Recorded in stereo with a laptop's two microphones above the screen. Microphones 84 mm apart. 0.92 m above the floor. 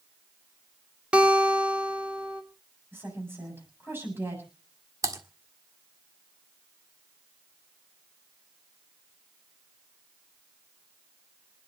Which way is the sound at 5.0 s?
40° right (ahead or behind).